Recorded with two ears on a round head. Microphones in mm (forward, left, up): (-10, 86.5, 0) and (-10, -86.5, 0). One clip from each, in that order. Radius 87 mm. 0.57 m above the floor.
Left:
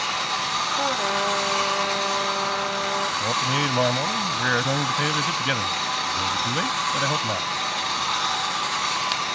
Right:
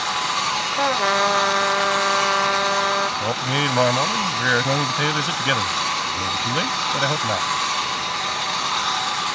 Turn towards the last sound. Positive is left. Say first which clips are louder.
# right 1 dB
turn(degrees=-15)  # may be behind; listen again after turning